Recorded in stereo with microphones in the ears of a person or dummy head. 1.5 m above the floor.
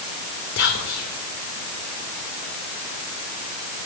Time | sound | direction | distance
0.6 | whispering | 65° left (ahead or behind) | 0.6 m